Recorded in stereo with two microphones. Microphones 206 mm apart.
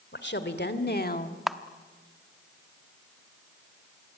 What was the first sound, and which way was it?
A woman speaking, 60° left (ahead or behind).